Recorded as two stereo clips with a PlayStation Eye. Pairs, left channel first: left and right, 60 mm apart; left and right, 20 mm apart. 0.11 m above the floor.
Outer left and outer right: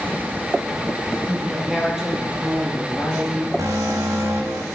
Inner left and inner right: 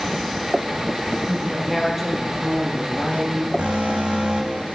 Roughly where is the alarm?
Right.